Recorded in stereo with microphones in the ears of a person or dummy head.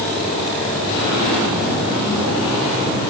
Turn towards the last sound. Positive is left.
No sound to turn to.